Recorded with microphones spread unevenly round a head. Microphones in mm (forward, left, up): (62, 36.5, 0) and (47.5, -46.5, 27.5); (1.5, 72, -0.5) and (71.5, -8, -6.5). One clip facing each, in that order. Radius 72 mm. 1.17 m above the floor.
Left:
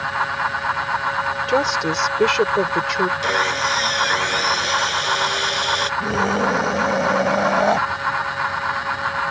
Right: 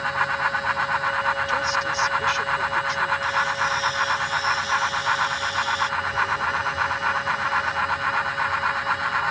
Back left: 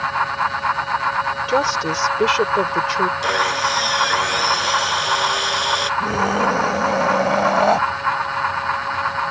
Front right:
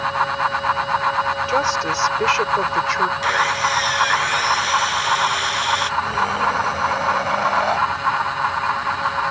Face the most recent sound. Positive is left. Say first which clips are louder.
# left 5 dB, back left 2 dB
turn(degrees=80)